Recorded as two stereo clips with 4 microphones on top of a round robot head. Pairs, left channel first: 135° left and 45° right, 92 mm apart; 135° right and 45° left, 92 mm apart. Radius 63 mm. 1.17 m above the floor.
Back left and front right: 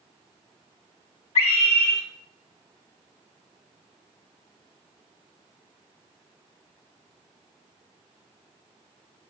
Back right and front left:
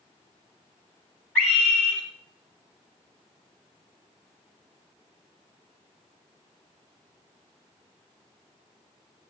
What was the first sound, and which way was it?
A scream, 145° left.